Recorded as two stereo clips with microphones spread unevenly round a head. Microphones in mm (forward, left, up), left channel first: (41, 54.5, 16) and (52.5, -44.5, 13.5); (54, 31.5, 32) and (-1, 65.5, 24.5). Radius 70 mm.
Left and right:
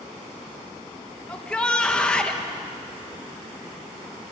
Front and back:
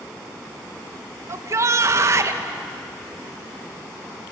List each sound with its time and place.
1.3 s a shout: straight behind, 1.2 m